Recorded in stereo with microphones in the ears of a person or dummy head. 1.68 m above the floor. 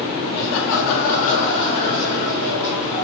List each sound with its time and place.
0.3 s laughter: 55° left (ahead or behind), 0.7 m; by 3.0 s 5° left (ahead or behind), 1.7 m